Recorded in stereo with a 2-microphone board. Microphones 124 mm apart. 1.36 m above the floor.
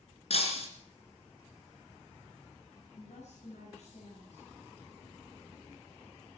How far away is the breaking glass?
About 3 m.